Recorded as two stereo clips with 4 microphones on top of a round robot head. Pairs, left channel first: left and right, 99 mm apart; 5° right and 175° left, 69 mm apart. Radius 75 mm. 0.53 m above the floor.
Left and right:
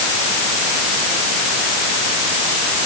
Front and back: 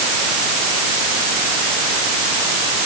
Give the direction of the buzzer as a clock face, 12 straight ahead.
I don't hear a buzzer.